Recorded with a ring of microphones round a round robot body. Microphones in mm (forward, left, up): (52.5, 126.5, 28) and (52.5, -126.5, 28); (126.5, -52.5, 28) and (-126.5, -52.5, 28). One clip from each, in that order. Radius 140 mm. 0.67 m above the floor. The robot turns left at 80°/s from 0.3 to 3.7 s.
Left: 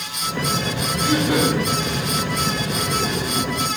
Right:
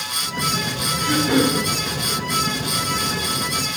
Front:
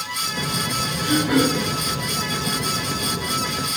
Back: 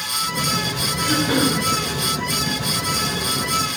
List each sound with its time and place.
1.0 s throat clearing: 90° right, 2.5 m; by 1.6 s 140° right, 2.5 m